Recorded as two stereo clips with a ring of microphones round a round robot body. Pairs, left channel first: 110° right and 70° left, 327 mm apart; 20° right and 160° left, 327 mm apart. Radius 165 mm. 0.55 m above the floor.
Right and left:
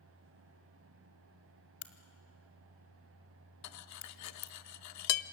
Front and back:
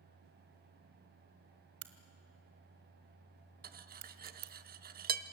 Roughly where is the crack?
Behind.